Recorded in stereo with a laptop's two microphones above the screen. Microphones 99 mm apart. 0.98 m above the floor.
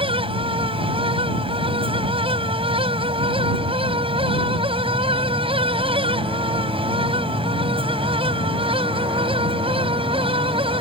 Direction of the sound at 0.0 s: 65° right (ahead or behind).